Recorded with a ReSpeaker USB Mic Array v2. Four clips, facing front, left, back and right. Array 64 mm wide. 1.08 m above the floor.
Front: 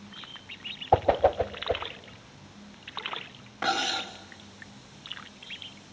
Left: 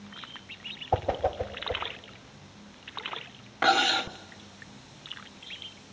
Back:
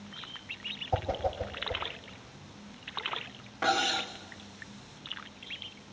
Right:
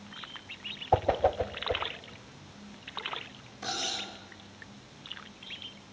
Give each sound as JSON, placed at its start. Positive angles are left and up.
{"t": 0.9, "sound": "a whoosh", "azimuth_deg": -5, "distance_m": 0.7}
{"t": 3.6, "sound": "cutlery clinking", "azimuth_deg": 85, "distance_m": 1.0}